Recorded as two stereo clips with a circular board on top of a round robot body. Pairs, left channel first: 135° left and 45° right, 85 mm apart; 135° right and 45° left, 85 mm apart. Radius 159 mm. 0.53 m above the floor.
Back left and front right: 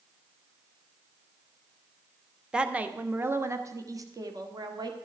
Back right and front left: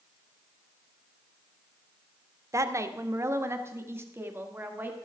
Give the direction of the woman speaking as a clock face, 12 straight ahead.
11 o'clock.